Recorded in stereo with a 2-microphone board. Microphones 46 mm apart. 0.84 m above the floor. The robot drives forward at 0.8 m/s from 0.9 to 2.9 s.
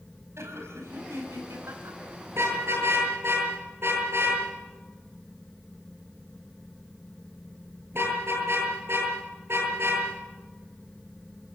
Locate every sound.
0.4 s laughter: 75° right (ahead or behind), 5 m; by 2.0 s 85° right, 5 m
2.3 s a car horn: 60° right (ahead or behind), 8.5 m